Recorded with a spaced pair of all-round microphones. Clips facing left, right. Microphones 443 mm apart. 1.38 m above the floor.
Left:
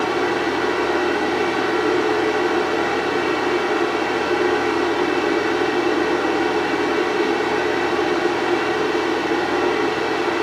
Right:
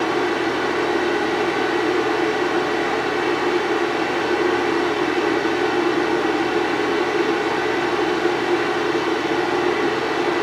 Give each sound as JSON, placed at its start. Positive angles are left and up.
{"t": 0.0, "sound": "a fan", "side_deg": 35, "distance_m": 1.2}